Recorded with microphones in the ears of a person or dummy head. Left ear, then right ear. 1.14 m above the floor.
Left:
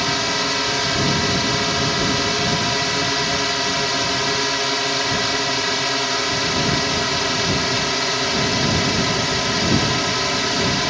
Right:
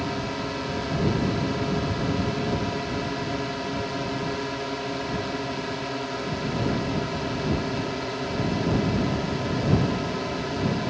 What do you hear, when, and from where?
0.0 s a drone: 65° left (ahead or behind)